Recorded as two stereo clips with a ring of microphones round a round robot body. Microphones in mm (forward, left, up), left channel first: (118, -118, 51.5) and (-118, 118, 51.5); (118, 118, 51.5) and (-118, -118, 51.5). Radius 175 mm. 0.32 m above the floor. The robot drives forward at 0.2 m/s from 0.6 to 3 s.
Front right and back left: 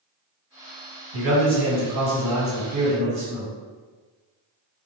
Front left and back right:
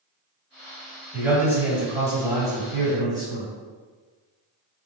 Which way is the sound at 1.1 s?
140° left.